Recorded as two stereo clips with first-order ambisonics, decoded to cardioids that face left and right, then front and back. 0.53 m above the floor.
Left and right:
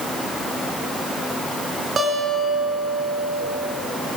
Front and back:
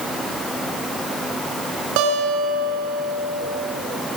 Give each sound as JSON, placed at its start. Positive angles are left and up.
{"t": 2.0, "sound": "a guitar", "azimuth_deg": -160, "distance_m": 1.6}